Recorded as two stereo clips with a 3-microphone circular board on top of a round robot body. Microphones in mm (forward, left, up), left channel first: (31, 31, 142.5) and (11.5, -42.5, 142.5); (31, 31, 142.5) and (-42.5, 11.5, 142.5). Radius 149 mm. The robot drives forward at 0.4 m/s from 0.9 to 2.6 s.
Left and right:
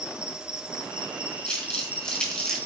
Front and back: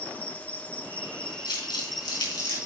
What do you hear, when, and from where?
0.0 s an insect: 40° right, 1.3 m; by 2.7 s 105° right, 1.2 m
1.4 s crumpling: 5° right, 4 m; by 2.7 s 10° right, 3.5 m